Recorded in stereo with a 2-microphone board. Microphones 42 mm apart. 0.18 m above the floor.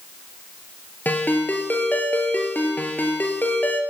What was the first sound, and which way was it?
A ringtone, 50° left (ahead or behind).